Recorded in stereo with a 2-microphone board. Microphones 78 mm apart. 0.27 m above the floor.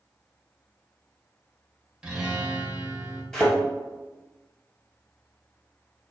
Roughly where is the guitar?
Centre.